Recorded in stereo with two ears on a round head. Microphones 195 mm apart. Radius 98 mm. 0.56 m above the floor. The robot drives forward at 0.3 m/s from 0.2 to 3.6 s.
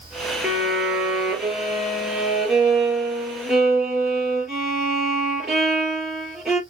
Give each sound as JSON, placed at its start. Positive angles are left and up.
{"t": 0.4, "sound": "a violin", "side_deg": -5, "distance_m": 2.5}